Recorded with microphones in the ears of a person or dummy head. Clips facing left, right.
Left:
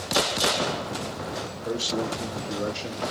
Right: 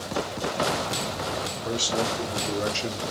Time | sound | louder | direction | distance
1.6 | a man speaking | even | 85° right | 1.8 m